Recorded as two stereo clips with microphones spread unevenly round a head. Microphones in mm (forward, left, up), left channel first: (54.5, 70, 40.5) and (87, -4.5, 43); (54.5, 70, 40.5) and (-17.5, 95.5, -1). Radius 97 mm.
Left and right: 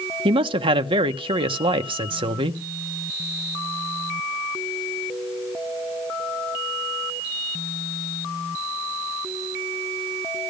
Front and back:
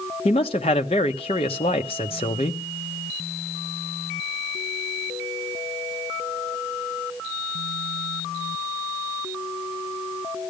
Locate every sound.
0.2 s a man speaking: 70° right, 1.1 m